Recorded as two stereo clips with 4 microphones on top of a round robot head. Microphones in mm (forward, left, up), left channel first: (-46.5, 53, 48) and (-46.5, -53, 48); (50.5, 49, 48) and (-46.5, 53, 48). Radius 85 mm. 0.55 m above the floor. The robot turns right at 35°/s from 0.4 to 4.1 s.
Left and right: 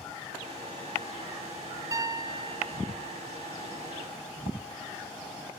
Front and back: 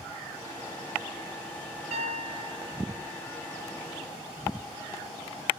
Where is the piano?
145° right, 0.8 m; by 3.2 s 100° right, 0.8 m.